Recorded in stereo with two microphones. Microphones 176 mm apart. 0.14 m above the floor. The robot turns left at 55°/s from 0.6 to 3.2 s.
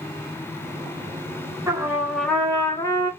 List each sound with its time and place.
1.7 s a trumpet: 155° right, 1.3 m; by 3.1 s 125° left, 1.3 m